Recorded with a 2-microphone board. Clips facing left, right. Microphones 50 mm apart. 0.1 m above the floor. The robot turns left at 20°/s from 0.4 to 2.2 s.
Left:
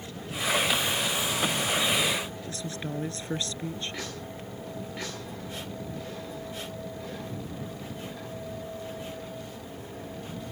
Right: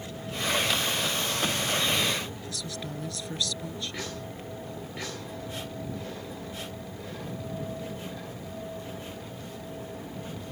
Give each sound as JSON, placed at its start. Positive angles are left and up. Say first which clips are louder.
{"t": 2.5, "sound": "a woman speaking", "louder": "left 2 dB", "side_deg": 35}